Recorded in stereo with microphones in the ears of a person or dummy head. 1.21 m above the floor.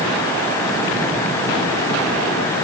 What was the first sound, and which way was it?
Only background noise.